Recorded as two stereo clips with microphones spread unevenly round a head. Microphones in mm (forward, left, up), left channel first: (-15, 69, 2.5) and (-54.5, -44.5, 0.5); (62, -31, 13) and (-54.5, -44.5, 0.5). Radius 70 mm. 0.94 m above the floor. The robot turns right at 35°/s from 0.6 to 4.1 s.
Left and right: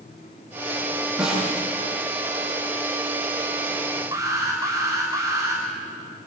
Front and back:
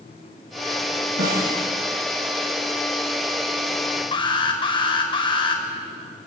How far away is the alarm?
About 5.5 m.